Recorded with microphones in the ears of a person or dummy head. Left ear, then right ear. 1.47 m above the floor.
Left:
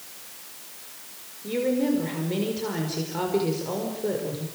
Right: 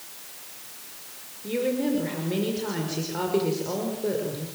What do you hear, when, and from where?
1.4 s a woman speaking: centre (ahead or behind), 5.5 m